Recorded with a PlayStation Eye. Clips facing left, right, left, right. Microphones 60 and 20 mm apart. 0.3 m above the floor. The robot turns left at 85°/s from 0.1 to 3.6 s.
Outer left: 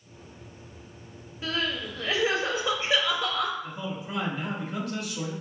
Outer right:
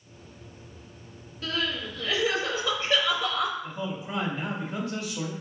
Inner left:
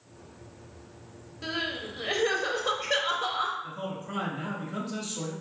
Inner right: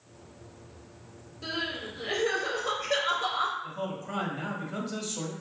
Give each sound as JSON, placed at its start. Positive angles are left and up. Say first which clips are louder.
{"t": 1.4, "sound": "crying", "louder": "even, inner left 1 dB", "azimuth_deg": 145, "distance_m": 0.7}
{"t": 3.6, "sound": "a man speaking", "louder": "outer right 1 dB, inner right 1 dB", "side_deg": -25, "distance_m": 1.1}